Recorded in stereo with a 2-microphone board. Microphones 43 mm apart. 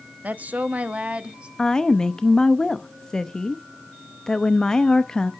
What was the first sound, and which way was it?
A woman speaking, 40° right (ahead or behind).